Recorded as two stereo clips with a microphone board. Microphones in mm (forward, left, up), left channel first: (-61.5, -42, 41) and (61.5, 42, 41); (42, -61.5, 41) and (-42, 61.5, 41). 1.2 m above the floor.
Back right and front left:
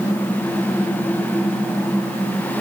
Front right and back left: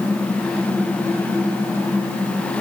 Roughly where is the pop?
No pop in this recording.